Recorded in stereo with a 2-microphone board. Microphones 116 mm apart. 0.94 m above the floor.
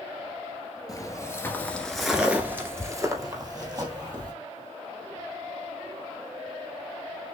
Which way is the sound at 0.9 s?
30° left (ahead or behind).